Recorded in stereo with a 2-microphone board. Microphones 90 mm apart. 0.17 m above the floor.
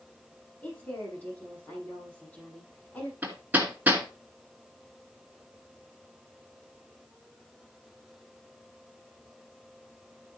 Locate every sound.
0.6 s a woman speaking: 15° left (ahead or behind), 8 m
3.2 s hammering: 20° right (ahead or behind), 2 m